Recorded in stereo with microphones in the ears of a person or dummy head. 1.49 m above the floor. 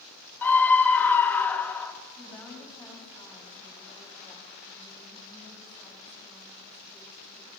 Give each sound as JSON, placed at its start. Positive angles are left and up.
{"t": 0.4, "sound": "a scream", "side_deg": 10, "distance_m": 0.6}
{"t": 2.2, "sound": "a woman speaking", "side_deg": 0, "distance_m": 3.5}